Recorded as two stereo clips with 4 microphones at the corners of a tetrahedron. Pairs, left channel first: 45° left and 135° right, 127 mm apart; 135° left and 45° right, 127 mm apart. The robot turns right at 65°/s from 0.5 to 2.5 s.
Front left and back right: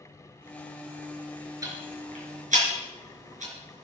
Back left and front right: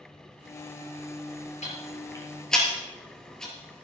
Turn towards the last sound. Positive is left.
turn(degrees=-140)